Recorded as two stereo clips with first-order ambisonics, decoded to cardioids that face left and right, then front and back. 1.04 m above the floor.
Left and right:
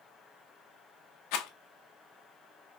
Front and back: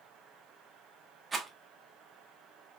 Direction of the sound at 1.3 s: 105° left.